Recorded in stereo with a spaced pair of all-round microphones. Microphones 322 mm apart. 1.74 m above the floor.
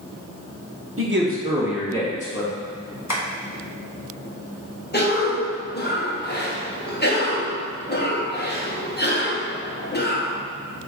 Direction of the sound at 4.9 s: 30° left (ahead or behind).